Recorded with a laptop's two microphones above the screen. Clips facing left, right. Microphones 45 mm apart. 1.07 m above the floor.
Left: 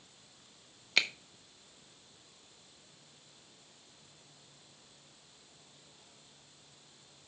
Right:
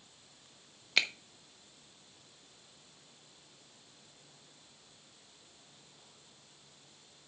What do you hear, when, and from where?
1.0 s a finger snap: centre (ahead or behind), 0.6 m